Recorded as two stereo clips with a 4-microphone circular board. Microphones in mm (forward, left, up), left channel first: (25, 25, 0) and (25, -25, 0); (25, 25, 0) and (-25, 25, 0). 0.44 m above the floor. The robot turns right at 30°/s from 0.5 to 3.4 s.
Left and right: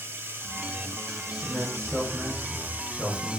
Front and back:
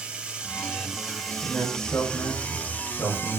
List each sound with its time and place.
0.0 s running water: 115° right, 1.5 m; by 3.4 s 25° right, 1.5 m
1.4 s a man speaking: 45° right, 4 m; by 3.4 s 15° left, 4 m